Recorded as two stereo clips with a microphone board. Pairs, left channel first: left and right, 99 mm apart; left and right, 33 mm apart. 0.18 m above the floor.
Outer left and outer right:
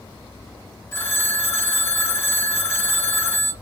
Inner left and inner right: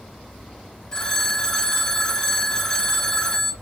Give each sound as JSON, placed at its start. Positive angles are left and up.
{"t": 0.9, "sound": "a phone ringing", "side_deg": 25, "distance_m": 1.1}